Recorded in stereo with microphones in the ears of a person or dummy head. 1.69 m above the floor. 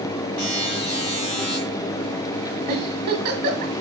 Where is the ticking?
I don't hear ticking.